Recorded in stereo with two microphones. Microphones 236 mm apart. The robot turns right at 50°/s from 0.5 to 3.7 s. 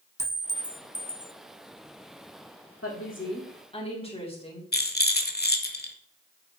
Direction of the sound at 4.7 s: 40° left (ahead or behind).